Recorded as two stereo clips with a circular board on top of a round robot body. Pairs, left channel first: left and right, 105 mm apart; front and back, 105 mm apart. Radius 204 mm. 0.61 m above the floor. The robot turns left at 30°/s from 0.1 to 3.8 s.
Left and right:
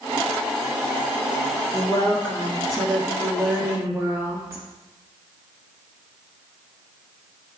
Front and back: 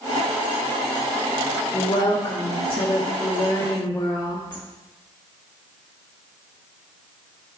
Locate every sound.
1.7 s a woman speaking: 25° left, 1.5 m; by 4.6 s 40° right, 1.5 m